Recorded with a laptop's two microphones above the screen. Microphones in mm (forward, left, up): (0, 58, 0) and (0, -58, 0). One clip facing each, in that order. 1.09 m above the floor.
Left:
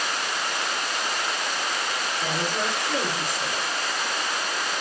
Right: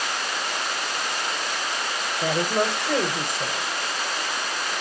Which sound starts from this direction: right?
A woman speaking, at 2.2 s.